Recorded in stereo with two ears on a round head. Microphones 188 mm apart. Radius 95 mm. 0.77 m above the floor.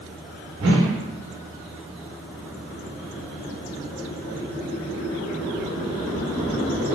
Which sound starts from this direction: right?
A whoosh, at 0.6 s.